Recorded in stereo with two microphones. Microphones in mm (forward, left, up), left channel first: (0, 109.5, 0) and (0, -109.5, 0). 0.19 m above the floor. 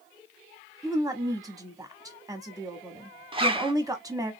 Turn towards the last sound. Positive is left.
turn(degrees=-25)  # may be behind; listen again after turning